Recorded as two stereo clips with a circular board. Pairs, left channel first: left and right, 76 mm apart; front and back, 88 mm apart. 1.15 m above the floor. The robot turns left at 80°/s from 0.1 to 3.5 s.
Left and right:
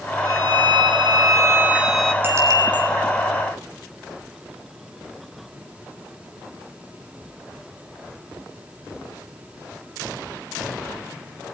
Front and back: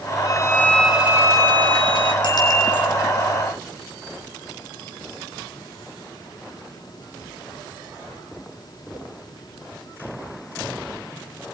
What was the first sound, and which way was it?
A violin, 45° right.